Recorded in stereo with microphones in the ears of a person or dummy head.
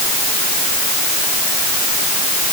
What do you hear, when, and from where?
Only background noise.